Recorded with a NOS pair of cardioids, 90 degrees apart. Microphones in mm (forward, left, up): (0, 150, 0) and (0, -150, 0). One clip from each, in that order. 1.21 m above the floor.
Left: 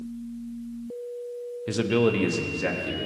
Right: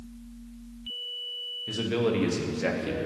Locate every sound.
1.7 s a man speaking: 45° left, 1.1 m; by 3.1 s 5° right, 2 m